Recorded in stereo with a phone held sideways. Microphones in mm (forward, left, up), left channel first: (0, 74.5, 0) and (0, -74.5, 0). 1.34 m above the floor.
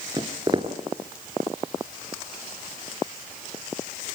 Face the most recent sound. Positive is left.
turn(degrees=-30)  # may be behind; listen again after turning